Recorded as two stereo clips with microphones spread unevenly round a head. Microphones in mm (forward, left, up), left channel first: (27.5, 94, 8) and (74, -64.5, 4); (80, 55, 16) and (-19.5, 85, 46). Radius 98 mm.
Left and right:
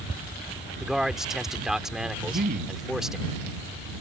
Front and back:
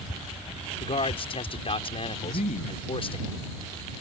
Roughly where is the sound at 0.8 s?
Ahead.